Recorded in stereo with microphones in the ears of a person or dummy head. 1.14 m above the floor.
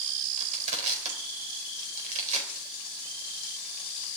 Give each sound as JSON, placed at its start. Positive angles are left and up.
{"t": 0.4, "sound": "crushing", "side_deg": -45, "distance_m": 4.5}